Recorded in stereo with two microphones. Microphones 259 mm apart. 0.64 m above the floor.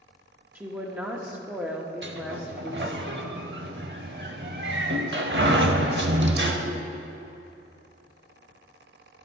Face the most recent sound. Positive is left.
turn(degrees=-50)  # may be behind; listen again after turning